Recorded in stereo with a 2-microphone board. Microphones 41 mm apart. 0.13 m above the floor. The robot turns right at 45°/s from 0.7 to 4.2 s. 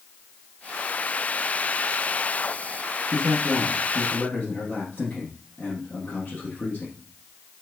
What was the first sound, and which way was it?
A man speaking, straight ahead.